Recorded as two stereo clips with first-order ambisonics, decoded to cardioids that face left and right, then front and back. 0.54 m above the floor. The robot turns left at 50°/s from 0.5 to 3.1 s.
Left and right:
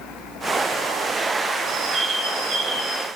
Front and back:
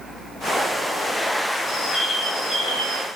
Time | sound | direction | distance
1.7 | a bird | 40° right | 0.9 m